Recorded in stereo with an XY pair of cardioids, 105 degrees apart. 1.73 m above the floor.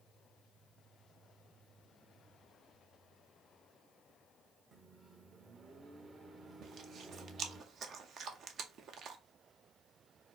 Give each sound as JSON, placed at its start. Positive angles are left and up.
{"t": 4.7, "sound": "a microwave", "azimuth_deg": -40, "distance_m": 1.2}
{"t": 6.6, "sound": "chewing", "azimuth_deg": -60, "distance_m": 0.8}